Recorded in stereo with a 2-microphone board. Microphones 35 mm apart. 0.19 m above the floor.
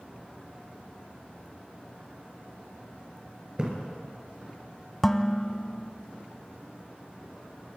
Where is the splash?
30° right (ahead or behind), 4 m.